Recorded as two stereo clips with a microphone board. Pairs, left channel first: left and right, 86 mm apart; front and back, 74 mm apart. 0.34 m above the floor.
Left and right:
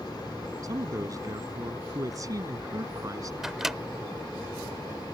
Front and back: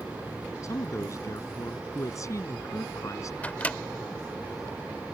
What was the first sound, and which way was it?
A man speaking, 40° right.